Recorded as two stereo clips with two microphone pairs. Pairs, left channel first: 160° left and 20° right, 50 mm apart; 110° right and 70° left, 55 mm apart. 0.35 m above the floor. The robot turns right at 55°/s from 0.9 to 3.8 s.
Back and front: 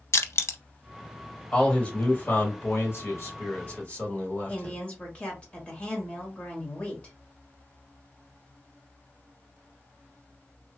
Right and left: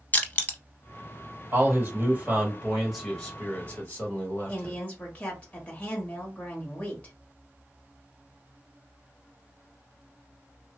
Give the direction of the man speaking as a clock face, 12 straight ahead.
9 o'clock.